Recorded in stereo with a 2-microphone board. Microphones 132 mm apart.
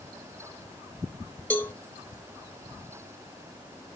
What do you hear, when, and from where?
1.5 s a cowbell: 15° left (ahead or behind), 0.8 m